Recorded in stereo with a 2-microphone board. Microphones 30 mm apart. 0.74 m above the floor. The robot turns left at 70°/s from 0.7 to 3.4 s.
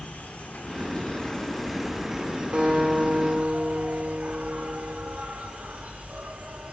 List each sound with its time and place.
0.0 s an insect: 75° left, 1.3 m; by 6.7 s 115° right, 1.3 m
2.5 s a guitar: 70° right, 3 m; by 5.2 s 130° right, 3 m